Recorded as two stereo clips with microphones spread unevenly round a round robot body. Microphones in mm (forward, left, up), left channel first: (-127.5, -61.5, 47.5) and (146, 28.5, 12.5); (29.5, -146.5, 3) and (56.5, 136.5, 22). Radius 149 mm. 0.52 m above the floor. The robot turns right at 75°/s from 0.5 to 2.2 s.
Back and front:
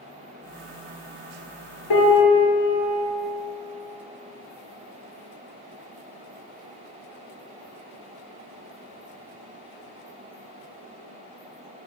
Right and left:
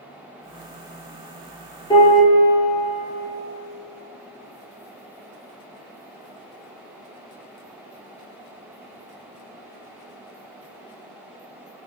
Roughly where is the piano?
Behind.